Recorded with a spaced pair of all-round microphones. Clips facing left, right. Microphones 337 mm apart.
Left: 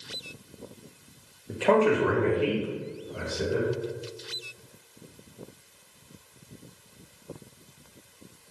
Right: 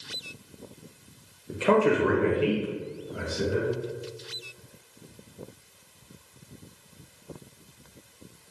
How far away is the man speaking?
About 0.6 m.